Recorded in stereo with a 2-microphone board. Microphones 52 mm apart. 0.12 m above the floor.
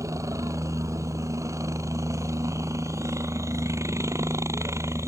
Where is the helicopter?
70° right (ahead or behind); by 5.1 s 55° right (ahead or behind).